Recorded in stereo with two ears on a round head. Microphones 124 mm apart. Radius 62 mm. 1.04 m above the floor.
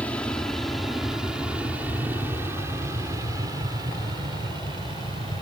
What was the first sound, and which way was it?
An aircraft, 10° left (ahead or behind).